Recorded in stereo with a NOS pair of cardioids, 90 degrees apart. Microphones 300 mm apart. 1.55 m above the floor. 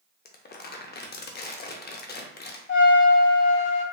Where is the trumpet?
40° left, 1.2 m.